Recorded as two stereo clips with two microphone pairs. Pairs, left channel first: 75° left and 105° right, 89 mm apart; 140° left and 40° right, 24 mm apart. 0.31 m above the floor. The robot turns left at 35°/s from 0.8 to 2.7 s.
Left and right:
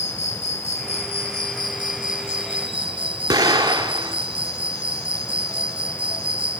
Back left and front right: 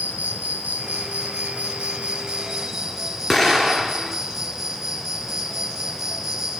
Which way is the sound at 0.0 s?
50° right.